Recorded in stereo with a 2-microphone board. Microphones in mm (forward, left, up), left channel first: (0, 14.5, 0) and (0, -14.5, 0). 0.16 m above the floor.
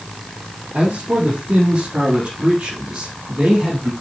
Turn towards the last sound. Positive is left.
turn(degrees=-50)  # may be behind; listen again after turning